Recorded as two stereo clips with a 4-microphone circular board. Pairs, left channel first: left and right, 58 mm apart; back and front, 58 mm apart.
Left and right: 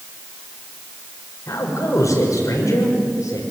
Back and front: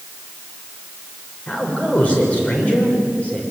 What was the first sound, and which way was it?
A man speaking, 115° left.